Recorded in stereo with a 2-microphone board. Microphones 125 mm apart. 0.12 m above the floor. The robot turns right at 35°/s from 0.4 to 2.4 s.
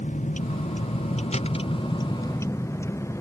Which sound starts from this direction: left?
A vehicle, at 0.0 s.